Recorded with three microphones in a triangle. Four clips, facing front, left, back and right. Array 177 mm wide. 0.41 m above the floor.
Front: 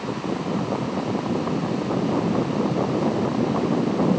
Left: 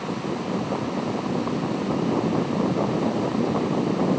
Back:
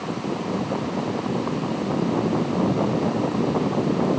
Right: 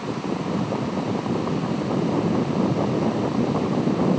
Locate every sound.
Only background noise.